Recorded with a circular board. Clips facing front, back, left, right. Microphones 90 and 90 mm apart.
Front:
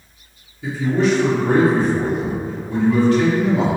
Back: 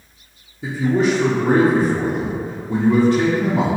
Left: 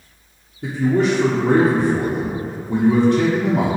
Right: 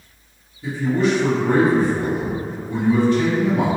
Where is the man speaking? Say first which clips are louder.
Back 1 dB, left 2 dB; 120° left, 0.6 m.